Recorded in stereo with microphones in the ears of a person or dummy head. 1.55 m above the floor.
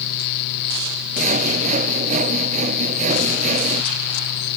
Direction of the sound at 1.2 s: 40° right (ahead or behind).